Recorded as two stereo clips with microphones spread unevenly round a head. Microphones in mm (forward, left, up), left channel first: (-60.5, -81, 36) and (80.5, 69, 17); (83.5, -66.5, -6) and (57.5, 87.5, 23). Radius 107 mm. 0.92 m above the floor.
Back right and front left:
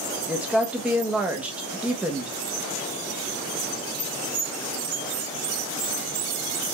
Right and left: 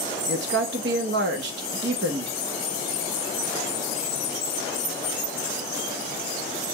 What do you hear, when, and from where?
0.3 s a woman speaking: 130° left, 0.9 m